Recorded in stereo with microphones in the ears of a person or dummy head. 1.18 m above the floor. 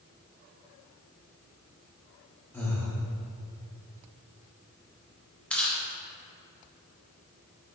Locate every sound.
2.5 s breathing: 10° left (ahead or behind), 1.5 m
5.5 s chewing: 5° left (ahead or behind), 1.4 m